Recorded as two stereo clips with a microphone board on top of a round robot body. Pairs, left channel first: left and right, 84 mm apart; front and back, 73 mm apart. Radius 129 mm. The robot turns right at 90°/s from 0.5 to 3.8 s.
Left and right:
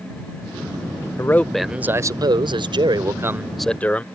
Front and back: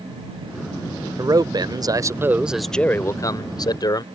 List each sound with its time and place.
1.2 s a man speaking: 140° left; by 4.0 s 15° left